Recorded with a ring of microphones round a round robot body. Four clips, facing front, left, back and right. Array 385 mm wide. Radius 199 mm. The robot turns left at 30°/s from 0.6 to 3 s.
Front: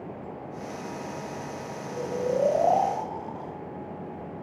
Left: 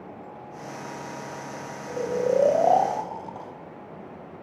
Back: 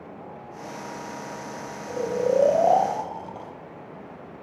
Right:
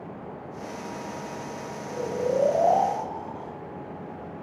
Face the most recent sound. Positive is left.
turn(degrees=115)